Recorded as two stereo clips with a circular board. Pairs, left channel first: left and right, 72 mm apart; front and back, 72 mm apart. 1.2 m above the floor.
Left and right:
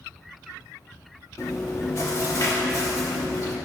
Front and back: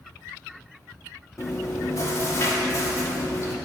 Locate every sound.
1.4 s chewing: 45° left, 1.1 m